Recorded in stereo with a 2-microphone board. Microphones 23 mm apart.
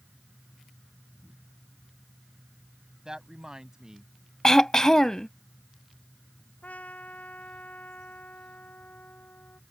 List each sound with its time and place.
3.0 s a woman speaking: 30° right (ahead or behind)
4.4 s throat clearing: 25° left (ahead or behind)
6.6 s a trumpet: 85° left